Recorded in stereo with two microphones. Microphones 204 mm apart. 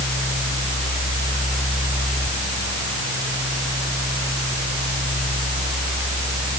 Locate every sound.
Only background noise.